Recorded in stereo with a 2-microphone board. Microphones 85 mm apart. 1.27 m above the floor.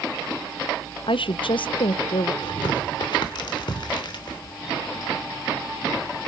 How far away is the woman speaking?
About 0.6 m.